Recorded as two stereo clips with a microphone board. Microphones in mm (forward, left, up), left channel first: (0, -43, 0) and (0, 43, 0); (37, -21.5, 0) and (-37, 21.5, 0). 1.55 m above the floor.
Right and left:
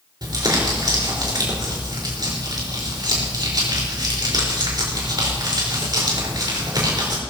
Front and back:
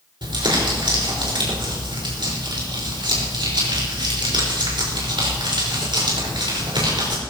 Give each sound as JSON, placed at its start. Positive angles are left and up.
{"t": 0.2, "sound": "crumpling", "azimuth_deg": 125, "distance_m": 5.0}